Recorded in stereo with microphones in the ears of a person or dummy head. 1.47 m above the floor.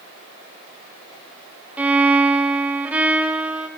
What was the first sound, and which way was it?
A violin, 5° right (ahead or behind).